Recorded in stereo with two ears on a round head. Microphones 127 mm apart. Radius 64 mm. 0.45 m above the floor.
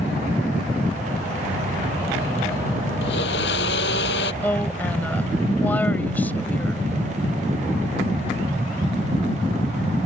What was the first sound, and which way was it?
A blender, 80° left.